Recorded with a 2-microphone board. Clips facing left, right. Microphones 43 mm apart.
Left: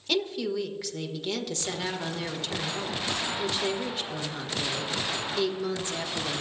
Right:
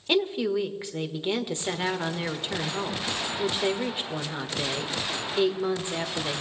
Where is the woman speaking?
25° right (ahead or behind), 1.4 m.